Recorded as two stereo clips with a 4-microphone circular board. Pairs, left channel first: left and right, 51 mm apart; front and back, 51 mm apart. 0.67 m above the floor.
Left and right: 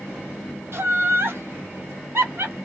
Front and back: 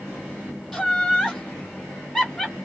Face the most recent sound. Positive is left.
turn(degrees=-90)